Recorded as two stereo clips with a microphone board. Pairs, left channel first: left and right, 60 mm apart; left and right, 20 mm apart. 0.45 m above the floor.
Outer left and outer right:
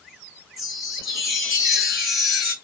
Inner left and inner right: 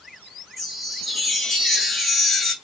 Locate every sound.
0.6 s a chime: centre (ahead or behind), 2.5 m